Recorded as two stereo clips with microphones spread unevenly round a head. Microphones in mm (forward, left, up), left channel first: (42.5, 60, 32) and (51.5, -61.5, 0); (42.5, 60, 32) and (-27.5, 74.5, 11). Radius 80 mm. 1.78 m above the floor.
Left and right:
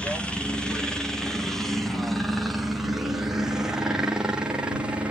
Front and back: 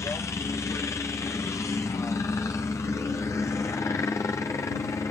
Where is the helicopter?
10° right; by 5.1 s 55° right.